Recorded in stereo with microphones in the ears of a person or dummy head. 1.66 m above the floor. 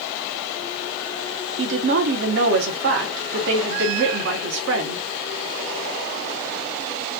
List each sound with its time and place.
1.6 s a woman speaking: 70° right (ahead or behind), 1.2 m